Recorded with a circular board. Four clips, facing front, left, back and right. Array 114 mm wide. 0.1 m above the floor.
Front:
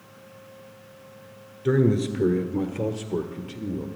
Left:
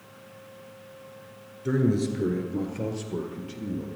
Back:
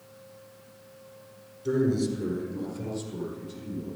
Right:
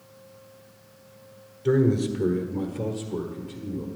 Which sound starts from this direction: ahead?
A man speaking, at 1.6 s.